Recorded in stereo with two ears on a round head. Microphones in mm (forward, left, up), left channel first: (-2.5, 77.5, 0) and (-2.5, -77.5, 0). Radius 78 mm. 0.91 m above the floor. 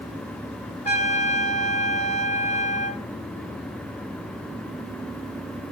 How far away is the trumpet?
About 2.5 m.